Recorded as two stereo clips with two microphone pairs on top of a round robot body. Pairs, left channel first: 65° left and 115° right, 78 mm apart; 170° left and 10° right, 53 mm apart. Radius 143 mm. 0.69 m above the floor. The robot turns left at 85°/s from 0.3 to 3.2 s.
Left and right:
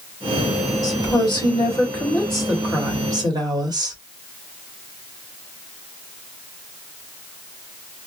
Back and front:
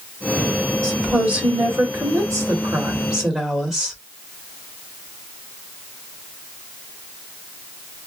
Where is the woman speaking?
105° left, 2 m; by 4.0 s 95° right, 2 m.